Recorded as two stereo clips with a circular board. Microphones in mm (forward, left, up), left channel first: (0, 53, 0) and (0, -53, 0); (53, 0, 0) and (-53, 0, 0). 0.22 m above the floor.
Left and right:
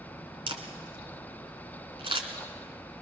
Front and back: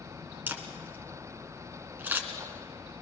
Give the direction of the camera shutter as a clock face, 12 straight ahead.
4 o'clock.